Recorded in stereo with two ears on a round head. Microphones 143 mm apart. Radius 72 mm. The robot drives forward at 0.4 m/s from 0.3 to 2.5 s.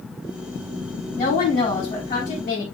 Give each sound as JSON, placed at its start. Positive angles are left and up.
{"t": 1.1, "sound": "a woman speaking", "side_deg": 40, "distance_m": 4.5}